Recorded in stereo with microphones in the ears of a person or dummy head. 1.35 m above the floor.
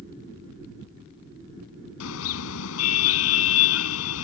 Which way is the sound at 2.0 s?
75° left (ahead or behind).